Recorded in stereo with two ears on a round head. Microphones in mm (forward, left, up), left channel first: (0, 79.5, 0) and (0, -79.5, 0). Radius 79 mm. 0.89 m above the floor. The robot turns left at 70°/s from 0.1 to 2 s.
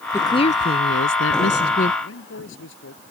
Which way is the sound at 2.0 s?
80° left.